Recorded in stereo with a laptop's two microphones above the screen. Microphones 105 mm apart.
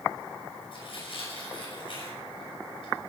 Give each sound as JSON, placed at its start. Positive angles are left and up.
{"t": 0.7, "sound": "tearing paper", "side_deg": 55, "distance_m": 5.5}